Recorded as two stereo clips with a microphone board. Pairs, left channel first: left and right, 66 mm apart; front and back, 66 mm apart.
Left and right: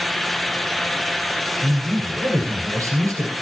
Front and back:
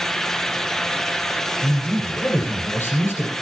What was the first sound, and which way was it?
A man speaking, 55° right.